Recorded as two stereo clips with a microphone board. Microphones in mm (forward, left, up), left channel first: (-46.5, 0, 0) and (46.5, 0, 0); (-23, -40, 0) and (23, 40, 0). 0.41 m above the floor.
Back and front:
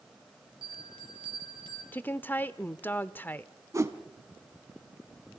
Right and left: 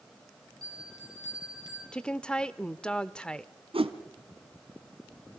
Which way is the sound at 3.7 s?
55° left.